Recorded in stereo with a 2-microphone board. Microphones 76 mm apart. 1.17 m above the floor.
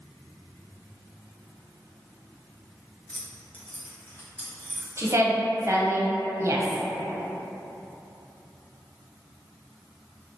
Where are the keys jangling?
20° left (ahead or behind), 0.5 m; by 4.9 s 25° left (ahead or behind), 1.8 m.